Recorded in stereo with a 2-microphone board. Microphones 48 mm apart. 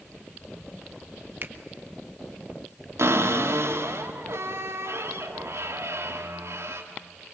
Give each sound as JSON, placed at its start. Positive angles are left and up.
{"t": 1.4, "sound": "a finger snap", "side_deg": -45, "distance_m": 1.6}
{"t": 3.0, "sound": "a cupboard door", "side_deg": -75, "distance_m": 3.0}